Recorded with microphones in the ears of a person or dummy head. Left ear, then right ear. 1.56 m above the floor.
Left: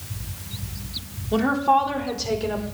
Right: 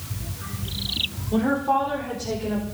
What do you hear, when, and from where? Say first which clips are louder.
1.3 s a woman speaking: left 4 dB; 55° left (ahead or behind), 3.5 m